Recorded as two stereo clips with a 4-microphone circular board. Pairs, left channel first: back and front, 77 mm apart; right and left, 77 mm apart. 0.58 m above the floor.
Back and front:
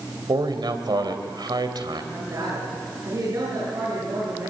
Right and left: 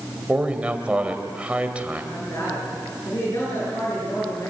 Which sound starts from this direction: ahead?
A man speaking, at 0.3 s.